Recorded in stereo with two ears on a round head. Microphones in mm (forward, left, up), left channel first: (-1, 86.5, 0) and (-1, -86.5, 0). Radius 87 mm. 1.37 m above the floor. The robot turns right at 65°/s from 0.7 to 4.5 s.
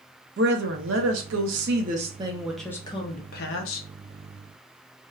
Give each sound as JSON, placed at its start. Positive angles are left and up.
{"t": 0.4, "sound": "a woman speaking", "azimuth_deg": -120, "distance_m": 0.6}